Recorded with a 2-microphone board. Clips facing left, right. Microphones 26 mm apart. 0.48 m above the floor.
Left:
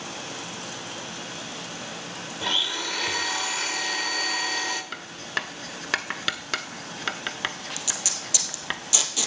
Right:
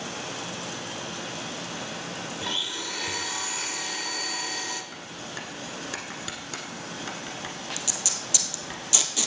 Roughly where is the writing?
Left.